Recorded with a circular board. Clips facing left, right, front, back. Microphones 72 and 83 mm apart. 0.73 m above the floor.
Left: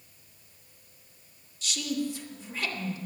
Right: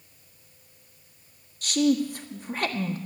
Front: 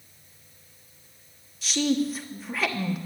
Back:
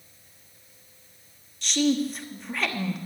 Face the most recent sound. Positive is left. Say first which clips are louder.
# right 9 dB, back 1 dB
turn(degrees=-85)